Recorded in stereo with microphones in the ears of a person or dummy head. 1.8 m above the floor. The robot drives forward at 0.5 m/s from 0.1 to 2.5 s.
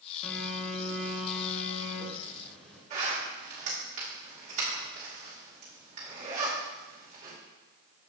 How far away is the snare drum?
No snare drum in this recording.